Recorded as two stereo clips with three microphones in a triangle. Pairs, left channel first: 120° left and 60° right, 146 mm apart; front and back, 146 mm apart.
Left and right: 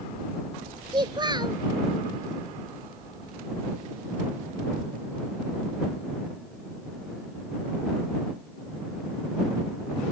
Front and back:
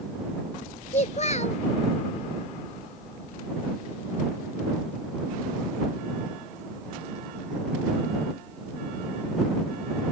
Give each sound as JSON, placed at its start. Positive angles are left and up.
{"t": 0.9, "sound": "a child speaking", "azimuth_deg": -10}